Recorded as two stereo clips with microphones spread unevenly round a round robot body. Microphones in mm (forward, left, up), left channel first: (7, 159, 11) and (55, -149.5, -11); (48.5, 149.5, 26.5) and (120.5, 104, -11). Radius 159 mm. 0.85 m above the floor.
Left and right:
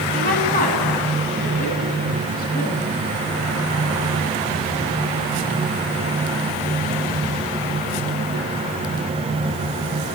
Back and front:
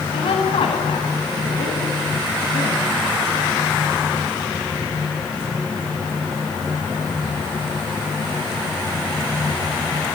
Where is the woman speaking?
165° left, 7.5 m.